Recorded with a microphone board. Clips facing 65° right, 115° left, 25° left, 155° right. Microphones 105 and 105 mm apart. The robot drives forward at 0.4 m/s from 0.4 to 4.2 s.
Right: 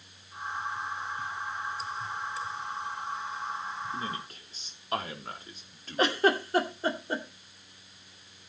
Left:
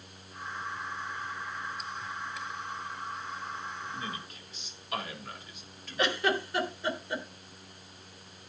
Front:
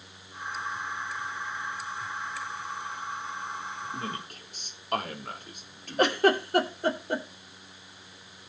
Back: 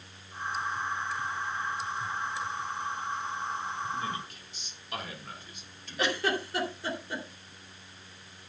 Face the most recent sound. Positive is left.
turn(degrees=-15)